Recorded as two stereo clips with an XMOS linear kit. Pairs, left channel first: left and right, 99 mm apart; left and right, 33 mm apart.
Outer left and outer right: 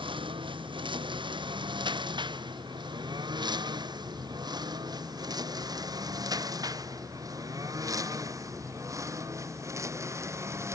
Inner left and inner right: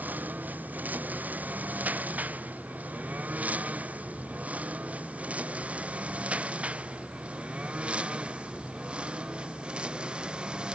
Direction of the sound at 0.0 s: 60° right (ahead or behind).